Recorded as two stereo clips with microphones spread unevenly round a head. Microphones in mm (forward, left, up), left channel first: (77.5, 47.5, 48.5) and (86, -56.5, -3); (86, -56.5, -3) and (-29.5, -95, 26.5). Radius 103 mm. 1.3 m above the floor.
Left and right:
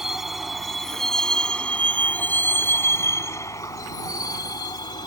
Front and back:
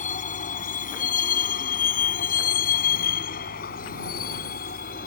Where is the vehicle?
5° left; by 5.1 s 55° left.